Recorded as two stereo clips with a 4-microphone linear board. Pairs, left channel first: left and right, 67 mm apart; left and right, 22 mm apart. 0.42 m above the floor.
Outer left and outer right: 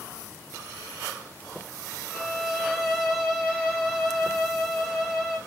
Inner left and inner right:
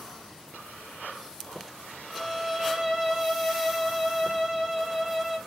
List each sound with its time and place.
2.1 s a violin: centre (ahead or behind), 1.8 m